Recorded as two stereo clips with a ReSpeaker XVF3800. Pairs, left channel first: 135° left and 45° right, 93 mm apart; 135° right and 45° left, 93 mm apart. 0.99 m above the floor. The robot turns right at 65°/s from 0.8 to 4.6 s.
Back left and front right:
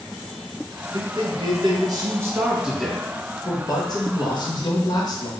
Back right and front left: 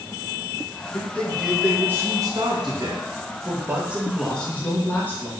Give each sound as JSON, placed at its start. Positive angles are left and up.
{"t": 0.9, "sound": "a man speaking", "azimuth_deg": -75, "distance_m": 0.9}